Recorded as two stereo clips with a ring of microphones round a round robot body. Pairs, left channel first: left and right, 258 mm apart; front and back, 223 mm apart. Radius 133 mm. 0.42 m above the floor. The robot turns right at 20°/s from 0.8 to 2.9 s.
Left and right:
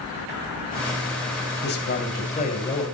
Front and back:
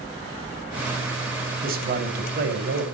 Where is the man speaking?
135° left, 3 m; by 2.9 s 160° left, 3 m.